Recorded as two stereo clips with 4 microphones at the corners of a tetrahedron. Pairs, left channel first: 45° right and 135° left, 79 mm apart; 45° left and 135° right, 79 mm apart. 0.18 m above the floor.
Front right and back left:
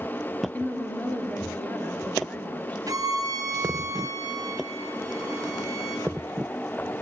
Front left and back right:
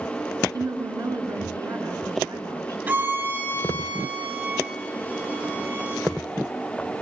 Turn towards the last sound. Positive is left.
turn(degrees=170)